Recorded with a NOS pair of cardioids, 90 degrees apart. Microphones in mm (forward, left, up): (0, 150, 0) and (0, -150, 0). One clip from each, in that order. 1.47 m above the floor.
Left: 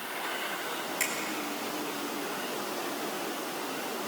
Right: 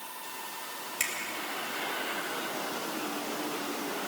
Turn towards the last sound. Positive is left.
turn(degrees=-25)